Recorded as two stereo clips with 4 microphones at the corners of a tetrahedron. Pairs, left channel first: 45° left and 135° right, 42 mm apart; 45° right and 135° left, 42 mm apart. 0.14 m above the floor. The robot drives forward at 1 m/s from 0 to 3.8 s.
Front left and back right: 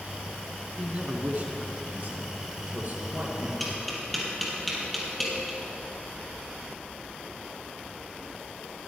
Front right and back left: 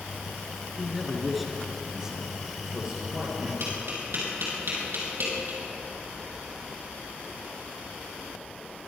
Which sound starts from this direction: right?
A man speaking, at 0.8 s.